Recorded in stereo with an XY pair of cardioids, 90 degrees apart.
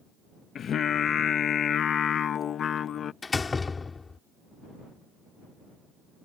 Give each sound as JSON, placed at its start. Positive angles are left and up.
{"t": 0.6, "sound": "singing", "azimuth_deg": 65}
{"t": 3.2, "sound": "a door slam", "azimuth_deg": 35}